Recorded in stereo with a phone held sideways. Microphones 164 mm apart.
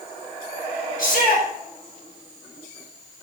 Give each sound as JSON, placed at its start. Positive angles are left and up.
{"t": 1.0, "sound": "a shout", "side_deg": 70, "distance_m": 4.5}